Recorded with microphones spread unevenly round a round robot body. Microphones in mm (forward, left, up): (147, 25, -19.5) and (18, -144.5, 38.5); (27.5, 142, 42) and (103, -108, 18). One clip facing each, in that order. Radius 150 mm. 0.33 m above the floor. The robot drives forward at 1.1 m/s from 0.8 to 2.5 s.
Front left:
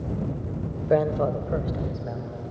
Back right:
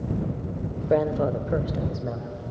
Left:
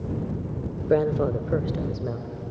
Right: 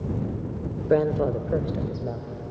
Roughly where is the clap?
I don't hear a clap.